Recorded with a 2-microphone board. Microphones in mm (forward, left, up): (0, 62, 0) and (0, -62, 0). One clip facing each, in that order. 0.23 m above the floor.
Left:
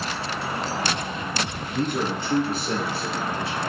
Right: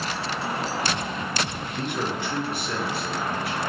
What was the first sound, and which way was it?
A man speaking, 45° left (ahead or behind).